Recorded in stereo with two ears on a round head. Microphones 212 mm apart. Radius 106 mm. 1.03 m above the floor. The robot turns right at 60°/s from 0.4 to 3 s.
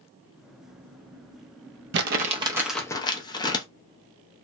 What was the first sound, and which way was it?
Crumpling, 45° right (ahead or behind).